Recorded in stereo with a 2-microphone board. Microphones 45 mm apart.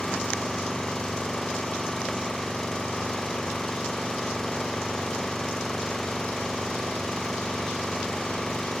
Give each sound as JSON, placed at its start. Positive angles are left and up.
{"t": 0.0, "sound": "an engine running", "side_deg": 10}